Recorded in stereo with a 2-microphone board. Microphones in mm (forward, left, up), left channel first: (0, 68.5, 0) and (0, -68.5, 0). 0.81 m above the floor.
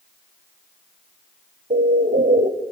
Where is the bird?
70° right (ahead or behind), 1.3 m.